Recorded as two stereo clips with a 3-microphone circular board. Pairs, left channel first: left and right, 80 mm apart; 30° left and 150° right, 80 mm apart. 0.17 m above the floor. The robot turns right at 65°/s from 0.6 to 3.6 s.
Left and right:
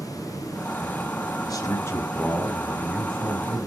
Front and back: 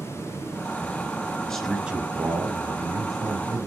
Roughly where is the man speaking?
Left.